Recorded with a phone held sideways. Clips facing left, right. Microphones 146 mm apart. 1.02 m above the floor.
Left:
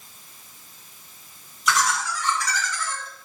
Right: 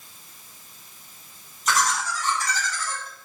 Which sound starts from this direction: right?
Laughter, at 1.7 s.